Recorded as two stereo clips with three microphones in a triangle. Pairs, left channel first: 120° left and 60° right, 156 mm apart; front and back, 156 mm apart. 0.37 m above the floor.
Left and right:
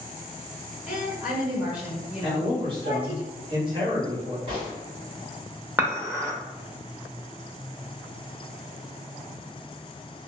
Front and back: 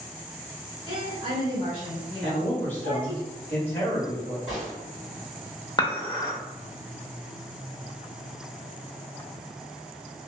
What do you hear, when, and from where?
0.9 s a woman speaking: 10° left, 1.2 m
2.2 s a man speaking: 65° right, 1.4 m
4.5 s a gunshot: 90° right, 1.7 m
5.8 s dishes clattering: 5° right, 0.6 m